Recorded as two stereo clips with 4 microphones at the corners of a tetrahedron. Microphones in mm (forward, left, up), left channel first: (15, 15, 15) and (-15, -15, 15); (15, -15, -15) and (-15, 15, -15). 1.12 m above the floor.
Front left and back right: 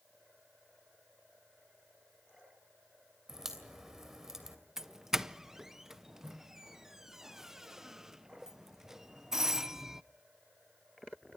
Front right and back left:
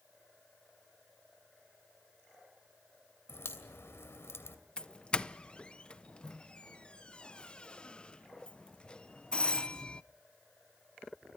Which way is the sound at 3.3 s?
55° right.